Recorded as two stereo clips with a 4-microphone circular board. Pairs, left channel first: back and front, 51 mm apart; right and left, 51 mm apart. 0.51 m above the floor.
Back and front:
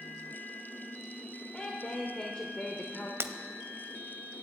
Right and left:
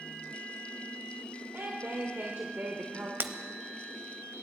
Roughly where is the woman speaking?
Behind left.